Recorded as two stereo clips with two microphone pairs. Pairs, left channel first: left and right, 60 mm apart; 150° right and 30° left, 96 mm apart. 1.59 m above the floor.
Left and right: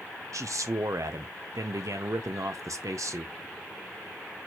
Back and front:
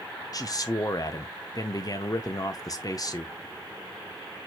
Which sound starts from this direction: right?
A man speaking, at 0.3 s.